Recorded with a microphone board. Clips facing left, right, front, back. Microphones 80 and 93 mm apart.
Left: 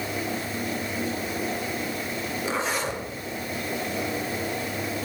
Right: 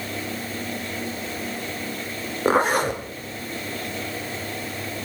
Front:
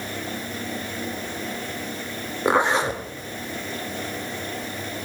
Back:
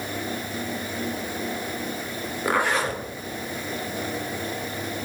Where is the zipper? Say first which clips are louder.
Right 10 dB, front 3 dB; 65° right, 1.8 m.